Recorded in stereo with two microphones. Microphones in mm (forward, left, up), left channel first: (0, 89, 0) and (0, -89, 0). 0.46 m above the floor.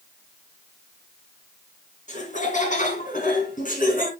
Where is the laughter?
45° left (ahead or behind), 3.5 m; by 4.1 s 50° left (ahead or behind), 4.5 m.